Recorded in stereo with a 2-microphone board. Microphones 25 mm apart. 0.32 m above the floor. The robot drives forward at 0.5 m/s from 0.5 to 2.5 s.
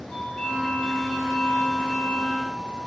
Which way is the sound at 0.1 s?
60° left (ahead or behind).